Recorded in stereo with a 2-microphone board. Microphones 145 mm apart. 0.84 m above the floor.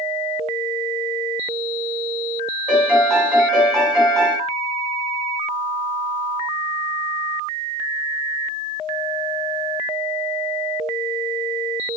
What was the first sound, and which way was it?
A piano, 5° right (ahead or behind).